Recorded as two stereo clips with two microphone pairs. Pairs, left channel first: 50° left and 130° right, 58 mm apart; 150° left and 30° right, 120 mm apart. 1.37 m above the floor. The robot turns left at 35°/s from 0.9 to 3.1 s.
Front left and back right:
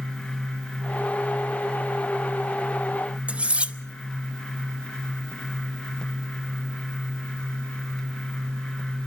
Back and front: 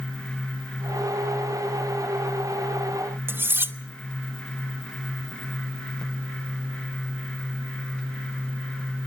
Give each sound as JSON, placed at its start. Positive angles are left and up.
{"t": 3.3, "sound": "cutlery clinking", "azimuth_deg": -80, "distance_m": 0.7}